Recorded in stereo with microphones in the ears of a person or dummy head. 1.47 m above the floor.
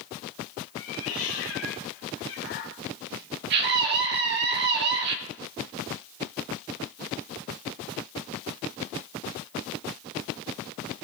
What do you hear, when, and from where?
0.8 s a cat meowing: 65° left (ahead or behind), 4 m
3.5 s a scream: 60° right (ahead or behind), 2.5 m